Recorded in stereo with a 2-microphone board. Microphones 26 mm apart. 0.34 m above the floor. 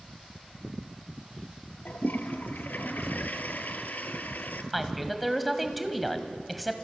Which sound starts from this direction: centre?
A woman speaking, at 4.7 s.